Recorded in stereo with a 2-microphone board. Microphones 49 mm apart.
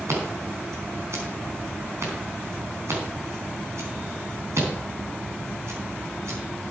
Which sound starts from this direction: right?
Scissors, at 0.1 s.